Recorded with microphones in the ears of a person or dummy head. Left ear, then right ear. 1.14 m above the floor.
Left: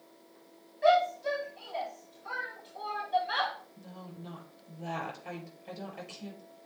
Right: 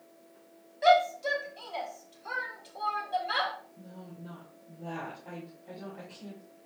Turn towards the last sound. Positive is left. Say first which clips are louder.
# even
turn(degrees=75)  # may be behind; listen again after turning